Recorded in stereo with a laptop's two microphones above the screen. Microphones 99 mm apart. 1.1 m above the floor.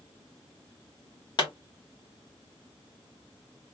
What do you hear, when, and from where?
1.4 s a pop: 50° left (ahead or behind), 1.4 m